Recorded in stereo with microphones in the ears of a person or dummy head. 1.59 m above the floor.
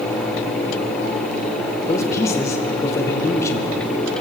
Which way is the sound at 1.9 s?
20° left (ahead or behind).